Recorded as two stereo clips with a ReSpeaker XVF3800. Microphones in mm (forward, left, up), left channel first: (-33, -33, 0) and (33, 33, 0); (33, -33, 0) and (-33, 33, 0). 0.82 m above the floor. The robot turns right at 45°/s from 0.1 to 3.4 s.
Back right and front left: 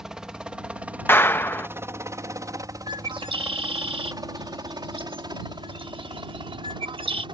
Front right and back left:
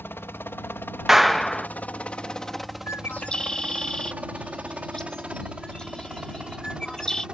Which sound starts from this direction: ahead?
A bird, at 2.9 s.